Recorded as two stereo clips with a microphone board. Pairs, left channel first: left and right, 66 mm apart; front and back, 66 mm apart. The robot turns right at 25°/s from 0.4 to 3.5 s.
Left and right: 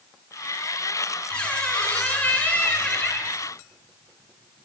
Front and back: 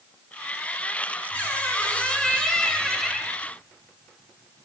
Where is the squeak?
30° left, 1.0 m; by 3.4 s 80° left, 1.0 m.